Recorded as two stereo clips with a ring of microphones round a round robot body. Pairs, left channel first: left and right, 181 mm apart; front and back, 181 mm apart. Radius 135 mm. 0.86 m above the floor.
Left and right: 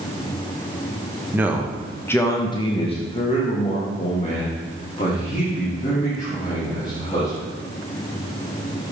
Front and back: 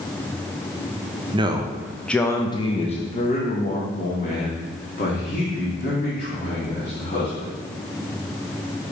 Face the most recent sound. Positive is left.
turn(degrees=35)